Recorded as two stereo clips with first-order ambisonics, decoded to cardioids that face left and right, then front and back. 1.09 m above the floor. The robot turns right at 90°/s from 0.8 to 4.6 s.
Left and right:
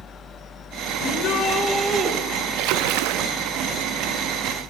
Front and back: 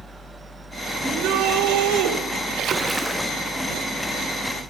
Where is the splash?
130° right, 1.2 m; by 3.3 s 65° right, 1.2 m.